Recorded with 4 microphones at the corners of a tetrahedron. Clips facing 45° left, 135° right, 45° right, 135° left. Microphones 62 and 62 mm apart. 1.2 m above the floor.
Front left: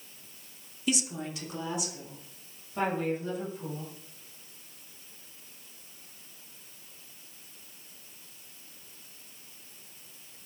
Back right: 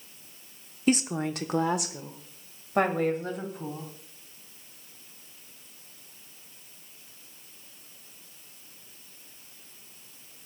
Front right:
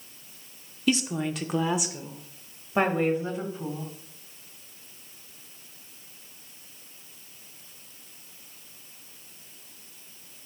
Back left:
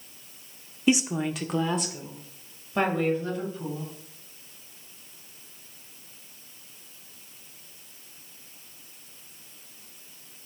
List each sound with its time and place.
0.9 s a woman speaking: 165° right, 0.7 m; by 3.9 s 110° right, 2.5 m